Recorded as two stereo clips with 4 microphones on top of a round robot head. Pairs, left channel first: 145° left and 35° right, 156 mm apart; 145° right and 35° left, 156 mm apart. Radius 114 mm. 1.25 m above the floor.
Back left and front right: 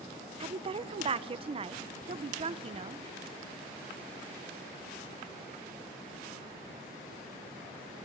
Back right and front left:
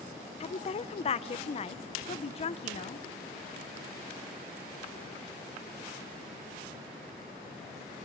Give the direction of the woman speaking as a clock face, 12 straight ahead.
3 o'clock.